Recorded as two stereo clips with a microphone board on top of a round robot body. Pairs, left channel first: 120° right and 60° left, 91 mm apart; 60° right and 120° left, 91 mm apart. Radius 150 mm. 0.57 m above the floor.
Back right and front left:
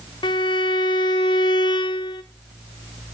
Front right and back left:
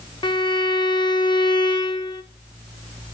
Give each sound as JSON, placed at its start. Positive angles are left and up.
{"t": 0.2, "sound": "a violin", "azimuth_deg": -90, "distance_m": 0.8}